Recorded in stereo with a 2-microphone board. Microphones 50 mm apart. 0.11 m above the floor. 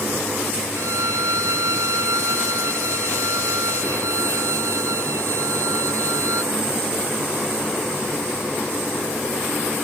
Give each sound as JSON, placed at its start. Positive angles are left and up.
{"t": 0.8, "sound": "a violin", "side_deg": -75}